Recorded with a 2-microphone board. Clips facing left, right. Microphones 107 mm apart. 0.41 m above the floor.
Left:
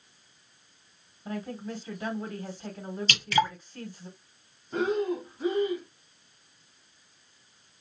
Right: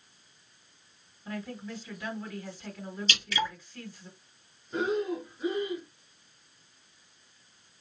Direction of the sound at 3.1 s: 55° left (ahead or behind).